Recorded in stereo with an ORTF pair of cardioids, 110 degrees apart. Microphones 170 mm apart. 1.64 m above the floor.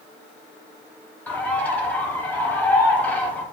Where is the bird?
10° left, 0.9 m.